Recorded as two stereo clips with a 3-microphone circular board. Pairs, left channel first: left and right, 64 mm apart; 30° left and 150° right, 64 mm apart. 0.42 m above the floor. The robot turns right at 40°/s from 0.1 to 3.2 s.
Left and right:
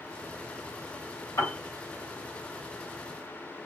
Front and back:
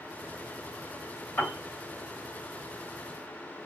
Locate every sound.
1.4 s a piano: 85° left, 2.5 m; by 1.6 s 90° left, 2.5 m